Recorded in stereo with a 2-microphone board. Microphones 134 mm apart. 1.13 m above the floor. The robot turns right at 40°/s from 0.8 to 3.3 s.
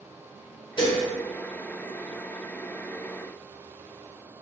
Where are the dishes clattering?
35° left (ahead or behind), 0.9 m; by 1.0 s 25° left (ahead or behind), 0.9 m.